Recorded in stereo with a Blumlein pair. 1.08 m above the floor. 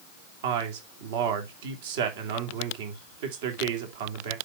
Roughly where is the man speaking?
Ahead right.